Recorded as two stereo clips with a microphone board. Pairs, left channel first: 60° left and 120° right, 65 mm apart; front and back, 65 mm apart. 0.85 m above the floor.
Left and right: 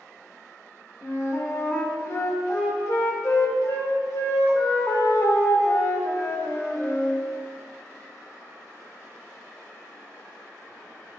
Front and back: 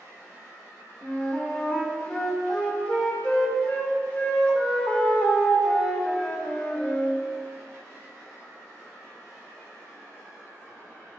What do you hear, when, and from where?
1.0 s a flute: 50° left, 1.3 m